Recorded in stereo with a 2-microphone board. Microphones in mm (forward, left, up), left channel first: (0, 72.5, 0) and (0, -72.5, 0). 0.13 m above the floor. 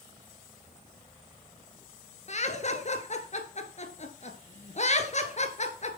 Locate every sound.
2.3 s laughter: 50° left (ahead or behind), 1.8 m